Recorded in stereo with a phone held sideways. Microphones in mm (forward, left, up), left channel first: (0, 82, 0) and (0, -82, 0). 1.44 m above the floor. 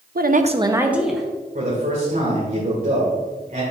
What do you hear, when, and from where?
0.1 s a woman speaking: 70° right (ahead or behind), 0.6 m; by 1.3 s centre (ahead or behind), 1.2 m
1.6 s a man speaking: 60° right (ahead or behind), 1.7 m